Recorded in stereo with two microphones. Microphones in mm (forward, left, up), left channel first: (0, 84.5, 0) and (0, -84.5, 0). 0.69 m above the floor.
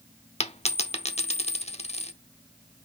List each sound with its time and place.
0.4 s a dropped coin: 40° left (ahead or behind), 0.7 m